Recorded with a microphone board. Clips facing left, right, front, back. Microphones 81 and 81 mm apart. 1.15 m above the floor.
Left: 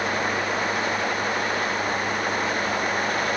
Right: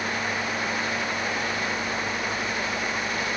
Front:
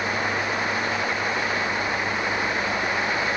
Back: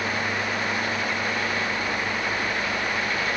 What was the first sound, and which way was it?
Only background noise.